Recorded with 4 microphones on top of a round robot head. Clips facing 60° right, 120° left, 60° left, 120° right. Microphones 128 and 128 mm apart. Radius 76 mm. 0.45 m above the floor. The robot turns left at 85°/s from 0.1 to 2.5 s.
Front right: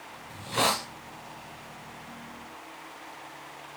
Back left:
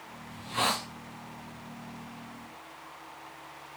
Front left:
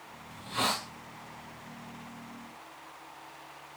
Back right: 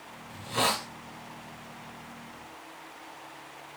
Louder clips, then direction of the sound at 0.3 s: Front right 3 dB, back right 4 dB; 70° right.